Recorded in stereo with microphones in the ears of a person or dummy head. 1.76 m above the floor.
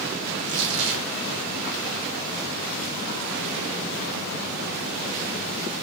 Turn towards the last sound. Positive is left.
turn(degrees=-60)  # may be behind; listen again after turning